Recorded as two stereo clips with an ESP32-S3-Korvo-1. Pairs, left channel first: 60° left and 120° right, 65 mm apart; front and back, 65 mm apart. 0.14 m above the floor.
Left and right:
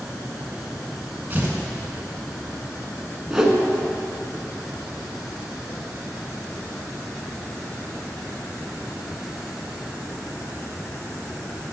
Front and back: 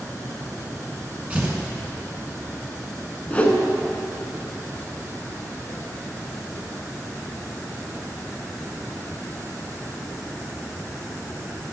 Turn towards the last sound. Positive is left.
turn(degrees=-45)